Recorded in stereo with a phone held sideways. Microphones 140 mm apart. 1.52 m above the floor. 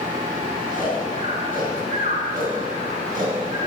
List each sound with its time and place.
0.7 s snoring: 75° right (ahead or behind), 4.5 m